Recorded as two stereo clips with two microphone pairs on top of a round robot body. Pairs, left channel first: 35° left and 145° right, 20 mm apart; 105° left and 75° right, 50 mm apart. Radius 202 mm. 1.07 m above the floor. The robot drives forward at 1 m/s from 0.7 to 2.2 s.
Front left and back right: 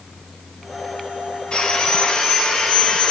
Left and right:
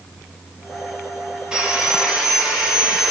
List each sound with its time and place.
1.5 s sawing: straight ahead, 9.5 m